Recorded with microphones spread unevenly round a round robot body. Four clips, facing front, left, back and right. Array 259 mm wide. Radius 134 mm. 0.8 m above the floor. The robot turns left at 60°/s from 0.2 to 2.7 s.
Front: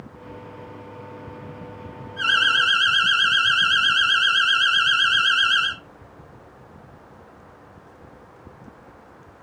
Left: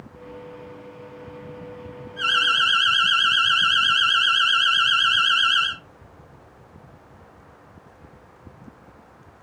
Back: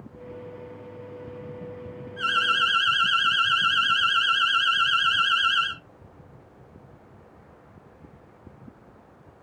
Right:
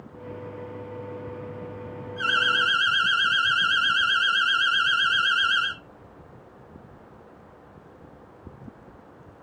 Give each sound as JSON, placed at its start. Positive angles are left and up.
{"t": 2.2, "sound": "an alarm", "azimuth_deg": -135, "distance_m": 2.0}